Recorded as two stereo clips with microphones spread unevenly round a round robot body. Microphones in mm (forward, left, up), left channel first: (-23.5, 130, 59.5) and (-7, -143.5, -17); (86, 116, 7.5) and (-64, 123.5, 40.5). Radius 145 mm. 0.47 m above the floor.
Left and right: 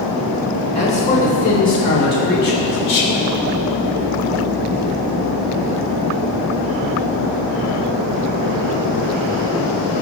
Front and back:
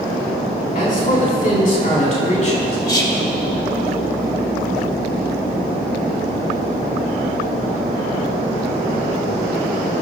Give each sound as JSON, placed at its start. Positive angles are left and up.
{"t": 0.8, "sound": "a man speaking", "azimuth_deg": 20, "distance_m": 4.5}
{"t": 2.9, "sound": "whispering", "azimuth_deg": 55, "distance_m": 2.5}